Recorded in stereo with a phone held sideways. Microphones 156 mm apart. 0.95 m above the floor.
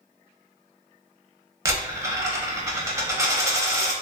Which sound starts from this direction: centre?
A dropped coin, at 1.6 s.